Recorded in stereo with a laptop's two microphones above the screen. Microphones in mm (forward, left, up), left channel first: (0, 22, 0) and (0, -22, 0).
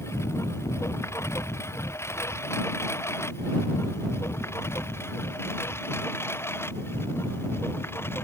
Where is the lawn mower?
80° left; by 8.2 s 60° left (ahead or behind).